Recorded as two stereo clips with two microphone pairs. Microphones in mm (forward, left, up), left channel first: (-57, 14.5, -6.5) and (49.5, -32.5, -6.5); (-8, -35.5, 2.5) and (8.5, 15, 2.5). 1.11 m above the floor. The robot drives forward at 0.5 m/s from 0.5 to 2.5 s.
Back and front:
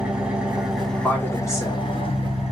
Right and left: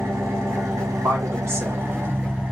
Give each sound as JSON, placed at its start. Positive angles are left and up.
{"t": 0.0, "sound": "an engine running", "azimuth_deg": 55, "distance_m": 0.8}
{"t": 1.0, "sound": "a woman speaking", "azimuth_deg": 80, "distance_m": 1.2}